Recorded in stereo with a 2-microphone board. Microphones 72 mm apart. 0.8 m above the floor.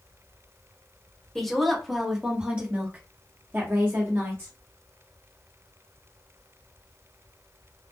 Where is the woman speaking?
5° left (ahead or behind), 1.2 m; by 4.5 s 40° right (ahead or behind), 1.3 m.